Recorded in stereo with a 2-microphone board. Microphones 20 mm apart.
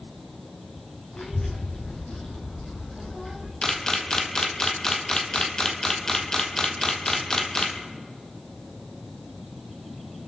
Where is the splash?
I don't hear a splash.